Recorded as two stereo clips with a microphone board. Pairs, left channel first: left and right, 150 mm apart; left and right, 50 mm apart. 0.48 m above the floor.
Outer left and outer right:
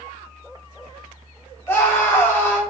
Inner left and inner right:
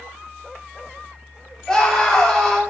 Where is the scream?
15° left (ahead or behind), 1.5 m.